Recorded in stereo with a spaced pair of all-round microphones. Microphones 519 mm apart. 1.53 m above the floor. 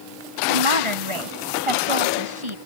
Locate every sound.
0.5 s a woman speaking: 70° right (ahead or behind)